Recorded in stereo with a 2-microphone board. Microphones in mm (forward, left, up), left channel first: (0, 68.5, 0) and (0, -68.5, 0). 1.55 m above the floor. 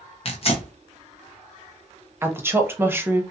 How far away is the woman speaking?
About 0.6 m.